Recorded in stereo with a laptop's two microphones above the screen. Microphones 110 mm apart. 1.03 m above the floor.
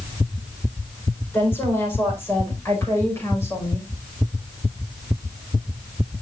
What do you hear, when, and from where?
1.3 s a woman speaking: 20° left (ahead or behind), 4.5 m; by 3.9 s 25° left (ahead or behind), 6 m